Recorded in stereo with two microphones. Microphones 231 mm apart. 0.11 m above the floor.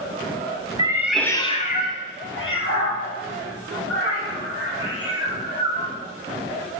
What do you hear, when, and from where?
0.8 s a cat meowing: 20° right (ahead or behind), 0.6 m; by 5.9 s 75° left (ahead or behind), 3 m